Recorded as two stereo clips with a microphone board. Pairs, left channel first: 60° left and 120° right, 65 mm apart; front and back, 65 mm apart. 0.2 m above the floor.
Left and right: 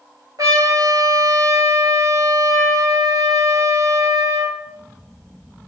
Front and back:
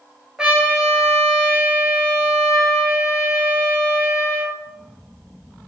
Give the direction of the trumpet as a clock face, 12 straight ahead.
3 o'clock.